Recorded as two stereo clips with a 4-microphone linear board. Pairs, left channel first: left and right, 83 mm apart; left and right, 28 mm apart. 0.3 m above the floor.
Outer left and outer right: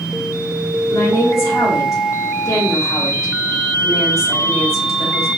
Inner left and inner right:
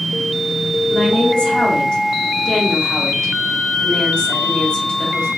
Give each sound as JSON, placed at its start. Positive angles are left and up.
{"t": 0.9, "sound": "a woman speaking", "side_deg": 40, "distance_m": 1.8}